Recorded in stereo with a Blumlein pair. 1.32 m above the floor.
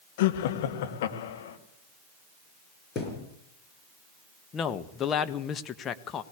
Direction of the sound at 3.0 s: 25° left.